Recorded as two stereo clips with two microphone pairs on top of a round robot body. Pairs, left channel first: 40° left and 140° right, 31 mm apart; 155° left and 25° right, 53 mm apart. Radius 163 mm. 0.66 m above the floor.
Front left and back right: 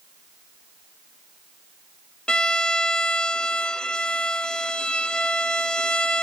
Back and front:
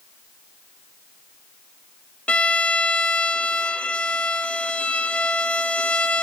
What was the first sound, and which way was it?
A violin, 95° left.